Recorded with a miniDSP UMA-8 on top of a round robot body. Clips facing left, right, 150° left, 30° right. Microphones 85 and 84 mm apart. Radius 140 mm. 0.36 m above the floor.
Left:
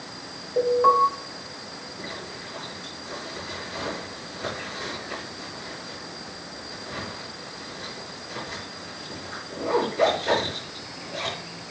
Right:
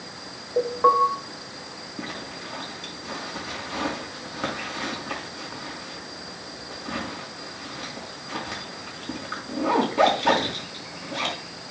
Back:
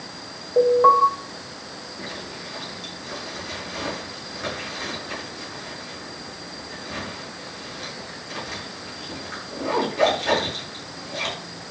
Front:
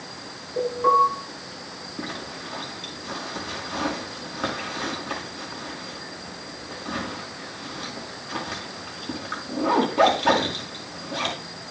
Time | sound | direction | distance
0.6 | an alarm | 170° right | 5.5 m
2.0 | a zipper | 70° right | 4.5 m